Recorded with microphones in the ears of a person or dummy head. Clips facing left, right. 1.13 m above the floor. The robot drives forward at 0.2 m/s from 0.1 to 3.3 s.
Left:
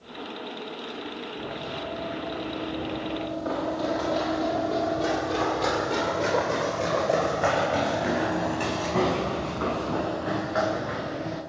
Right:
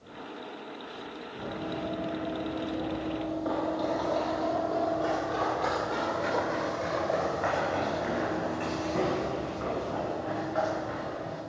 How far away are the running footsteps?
About 2.5 m.